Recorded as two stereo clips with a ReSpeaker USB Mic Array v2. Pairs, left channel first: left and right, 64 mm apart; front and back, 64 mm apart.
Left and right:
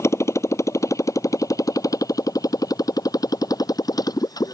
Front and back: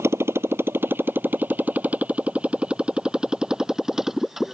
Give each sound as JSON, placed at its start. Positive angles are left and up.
{"t": 0.0, "sound": "a motorcycle", "azimuth_deg": 135}